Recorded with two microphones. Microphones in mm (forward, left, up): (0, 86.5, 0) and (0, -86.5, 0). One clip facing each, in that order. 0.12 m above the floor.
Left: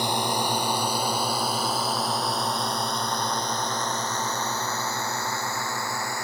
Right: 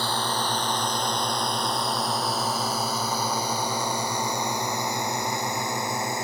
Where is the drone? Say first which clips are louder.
Left 2 dB; 15° left (ahead or behind); by 6.2 s 20° right (ahead or behind).